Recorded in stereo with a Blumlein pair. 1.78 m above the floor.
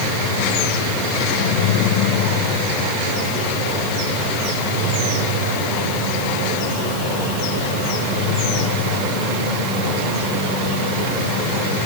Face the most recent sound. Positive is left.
No sound to turn to.